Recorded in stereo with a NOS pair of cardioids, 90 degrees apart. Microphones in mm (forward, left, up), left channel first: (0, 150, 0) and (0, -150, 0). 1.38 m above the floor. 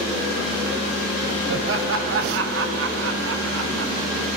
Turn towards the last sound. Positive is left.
turn(degrees=-50)